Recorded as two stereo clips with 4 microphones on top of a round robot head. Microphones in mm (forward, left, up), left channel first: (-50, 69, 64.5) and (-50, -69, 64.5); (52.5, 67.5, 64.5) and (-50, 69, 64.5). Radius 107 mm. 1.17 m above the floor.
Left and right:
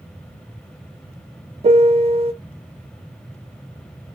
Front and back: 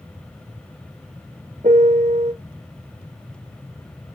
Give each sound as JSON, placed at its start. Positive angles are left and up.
{"t": 1.6, "sound": "a piano", "azimuth_deg": -130, "distance_m": 0.6}